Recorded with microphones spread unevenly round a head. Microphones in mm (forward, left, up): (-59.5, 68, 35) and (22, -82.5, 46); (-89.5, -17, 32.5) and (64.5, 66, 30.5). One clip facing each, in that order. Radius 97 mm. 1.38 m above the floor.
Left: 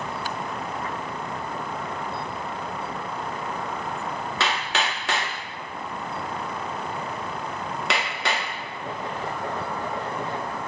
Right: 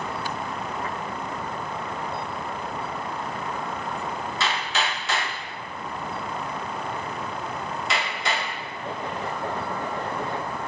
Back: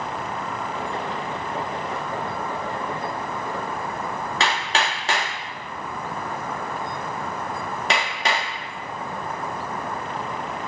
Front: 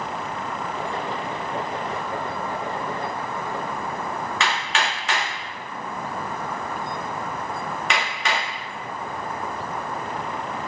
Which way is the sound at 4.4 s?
150° left.